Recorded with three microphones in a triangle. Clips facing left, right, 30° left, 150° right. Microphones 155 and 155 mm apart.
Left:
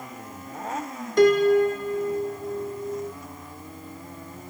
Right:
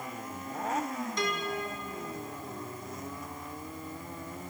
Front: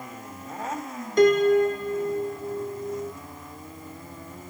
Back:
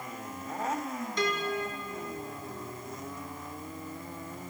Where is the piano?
65° left.